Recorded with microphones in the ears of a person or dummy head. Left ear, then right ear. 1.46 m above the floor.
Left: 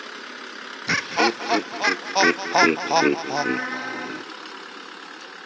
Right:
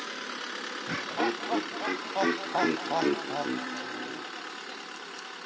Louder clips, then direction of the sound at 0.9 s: Left 10 dB; 70° left (ahead or behind).